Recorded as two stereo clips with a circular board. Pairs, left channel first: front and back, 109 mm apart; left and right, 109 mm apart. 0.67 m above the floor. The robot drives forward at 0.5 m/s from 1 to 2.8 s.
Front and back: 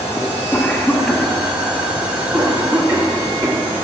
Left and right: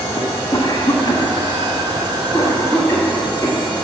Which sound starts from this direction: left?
A cough, at 0.2 s.